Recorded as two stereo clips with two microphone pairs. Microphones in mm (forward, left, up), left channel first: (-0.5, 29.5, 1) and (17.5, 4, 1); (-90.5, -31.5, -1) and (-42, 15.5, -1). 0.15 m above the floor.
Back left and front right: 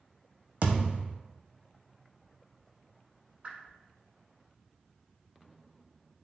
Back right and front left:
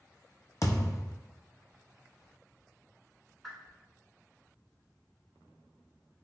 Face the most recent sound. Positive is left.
turn(degrees=-50)